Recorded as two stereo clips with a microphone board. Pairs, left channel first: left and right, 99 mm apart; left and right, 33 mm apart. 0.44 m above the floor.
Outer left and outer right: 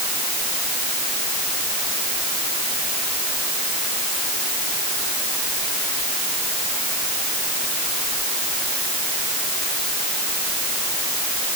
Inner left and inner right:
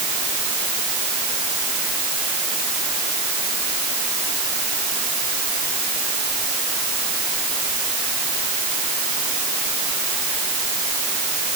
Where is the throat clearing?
No throat clearing in this recording.